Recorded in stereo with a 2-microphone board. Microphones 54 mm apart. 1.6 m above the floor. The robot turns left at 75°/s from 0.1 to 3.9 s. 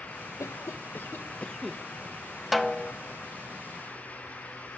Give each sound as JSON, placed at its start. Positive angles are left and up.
{"t": 0.4, "sound": "a cough", "azimuth_deg": 95, "distance_m": 1.2}
{"t": 2.5, "sound": "a snare drum", "azimuth_deg": -175, "distance_m": 1.2}